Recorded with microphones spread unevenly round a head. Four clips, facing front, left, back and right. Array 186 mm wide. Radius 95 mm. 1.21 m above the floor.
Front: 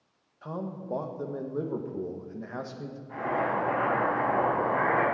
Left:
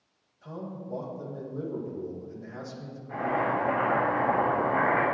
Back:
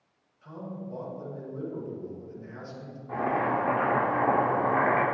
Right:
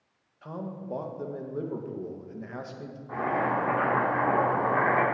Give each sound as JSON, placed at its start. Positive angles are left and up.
{"t": 0.4, "sound": "a man speaking", "azimuth_deg": -25, "distance_m": 1.7}
{"t": 3.1, "sound": "boiling", "azimuth_deg": -160, "distance_m": 3.5}